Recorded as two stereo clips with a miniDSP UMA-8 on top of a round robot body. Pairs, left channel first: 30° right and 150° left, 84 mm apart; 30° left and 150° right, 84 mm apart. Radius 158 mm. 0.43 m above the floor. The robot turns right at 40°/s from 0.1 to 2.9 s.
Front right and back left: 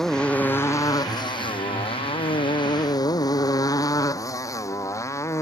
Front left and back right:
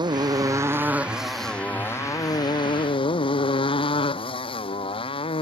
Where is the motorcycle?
115° right; by 5.4 s 25° left.